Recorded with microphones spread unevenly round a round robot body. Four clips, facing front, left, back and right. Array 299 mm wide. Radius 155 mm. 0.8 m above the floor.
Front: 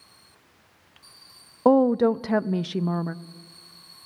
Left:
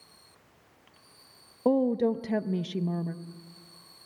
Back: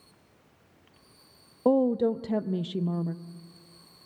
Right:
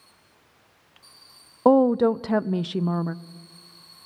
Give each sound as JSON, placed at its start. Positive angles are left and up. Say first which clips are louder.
{"t": 1.6, "sound": "a woman speaking", "louder": "right 7 dB, front 5 dB", "azimuth_deg": -25, "distance_m": 0.6}